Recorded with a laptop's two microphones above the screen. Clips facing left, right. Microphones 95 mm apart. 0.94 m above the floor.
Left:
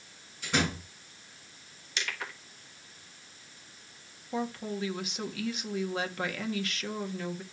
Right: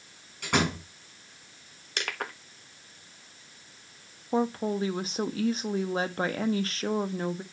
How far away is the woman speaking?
About 1.2 m.